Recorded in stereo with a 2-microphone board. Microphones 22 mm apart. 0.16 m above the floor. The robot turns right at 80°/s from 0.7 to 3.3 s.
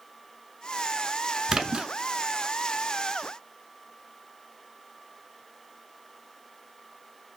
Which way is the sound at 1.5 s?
140° right.